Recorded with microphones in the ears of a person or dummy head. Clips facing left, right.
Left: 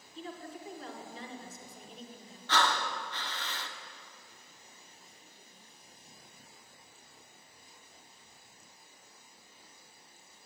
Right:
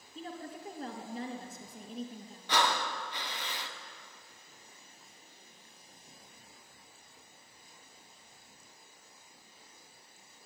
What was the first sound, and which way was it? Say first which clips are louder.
A woman speaking: right 1 dB; 40° right (ahead or behind).